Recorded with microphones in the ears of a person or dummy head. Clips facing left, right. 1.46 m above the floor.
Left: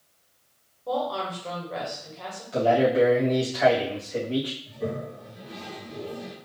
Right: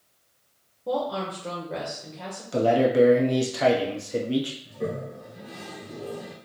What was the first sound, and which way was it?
A woman speaking, 25° right (ahead or behind).